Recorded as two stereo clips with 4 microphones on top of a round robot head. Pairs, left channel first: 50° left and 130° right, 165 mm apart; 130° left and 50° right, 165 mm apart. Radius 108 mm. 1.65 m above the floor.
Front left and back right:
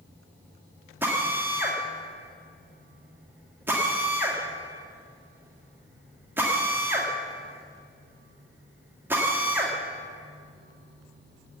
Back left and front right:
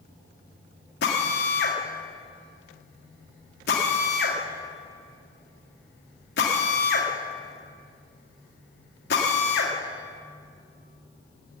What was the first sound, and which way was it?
A drill, 150° left.